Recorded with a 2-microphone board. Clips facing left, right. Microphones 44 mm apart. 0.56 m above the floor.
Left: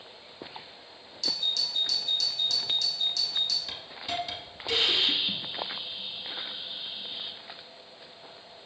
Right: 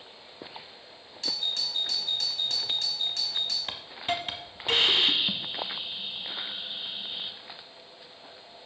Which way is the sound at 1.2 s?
35° right (ahead or behind).